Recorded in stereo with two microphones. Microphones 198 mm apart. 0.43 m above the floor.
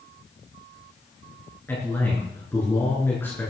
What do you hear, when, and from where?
1.7 s a man speaking: 10° left (ahead or behind), 5 m